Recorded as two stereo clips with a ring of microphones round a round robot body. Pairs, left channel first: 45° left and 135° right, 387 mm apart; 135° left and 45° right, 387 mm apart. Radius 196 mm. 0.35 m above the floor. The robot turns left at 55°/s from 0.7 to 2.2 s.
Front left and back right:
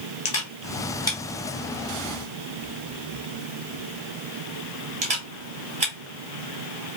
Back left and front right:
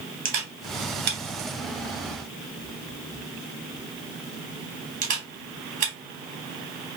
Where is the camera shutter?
5° right, 1.1 m; by 5.9 s 85° right, 1.1 m.